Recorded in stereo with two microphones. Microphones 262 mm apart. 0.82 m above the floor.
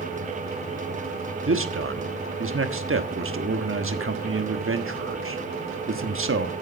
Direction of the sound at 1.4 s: 60° right (ahead or behind).